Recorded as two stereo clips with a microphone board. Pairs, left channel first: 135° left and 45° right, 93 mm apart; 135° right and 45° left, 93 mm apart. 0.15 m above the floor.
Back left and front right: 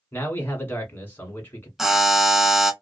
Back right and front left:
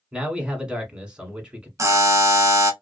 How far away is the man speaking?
About 1.1 m.